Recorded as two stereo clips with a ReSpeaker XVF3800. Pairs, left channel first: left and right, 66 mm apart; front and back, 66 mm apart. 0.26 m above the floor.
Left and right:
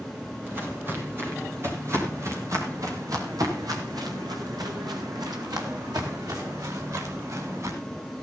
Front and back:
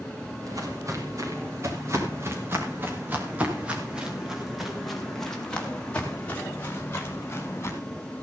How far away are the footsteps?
About 6.5 m.